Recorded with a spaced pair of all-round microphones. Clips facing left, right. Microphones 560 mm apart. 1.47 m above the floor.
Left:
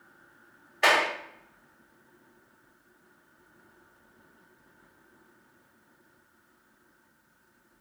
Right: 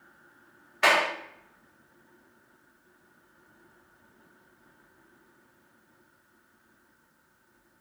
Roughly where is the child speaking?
No child speaking in this recording.